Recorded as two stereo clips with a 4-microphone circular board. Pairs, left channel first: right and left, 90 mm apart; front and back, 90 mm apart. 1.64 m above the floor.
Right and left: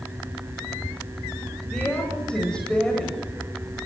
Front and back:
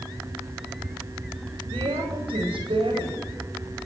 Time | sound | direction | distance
1.7 | a woman speaking | 170° right | 9.5 m